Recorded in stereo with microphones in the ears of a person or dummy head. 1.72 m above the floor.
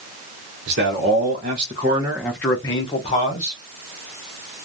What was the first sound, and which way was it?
A man speaking, 50° right (ahead or behind).